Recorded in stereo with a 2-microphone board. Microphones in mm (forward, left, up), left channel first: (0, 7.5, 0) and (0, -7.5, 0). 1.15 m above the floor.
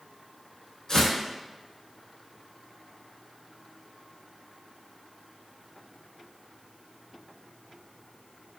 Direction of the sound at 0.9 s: 45° left (ahead or behind).